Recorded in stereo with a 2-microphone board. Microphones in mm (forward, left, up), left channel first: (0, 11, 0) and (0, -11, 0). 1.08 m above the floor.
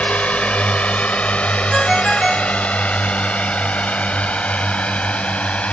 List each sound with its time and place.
0.0 s a drone: 80° left
1.7 s a ringtone: 5° right (ahead or behind)